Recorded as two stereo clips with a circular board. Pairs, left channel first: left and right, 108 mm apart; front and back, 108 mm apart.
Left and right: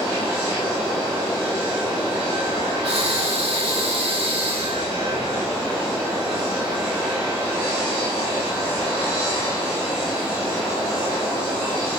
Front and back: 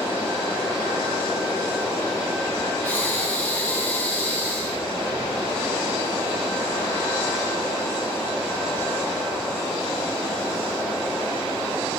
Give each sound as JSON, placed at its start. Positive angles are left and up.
{"t": 2.8, "sound": "breathing", "azimuth_deg": -70, "distance_m": 3.0}